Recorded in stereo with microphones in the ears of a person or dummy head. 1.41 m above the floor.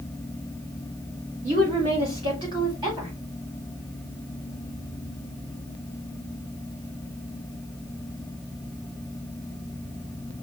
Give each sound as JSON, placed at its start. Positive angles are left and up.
{"t": 1.4, "sound": "a woman speaking", "side_deg": -35, "distance_m": 1.6}